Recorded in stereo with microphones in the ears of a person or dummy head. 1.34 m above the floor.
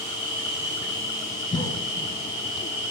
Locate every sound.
0.0 s an insect: 30° left (ahead or behind), 5.5 m
1.5 s a cough: 20° left (ahead or behind), 1.3 m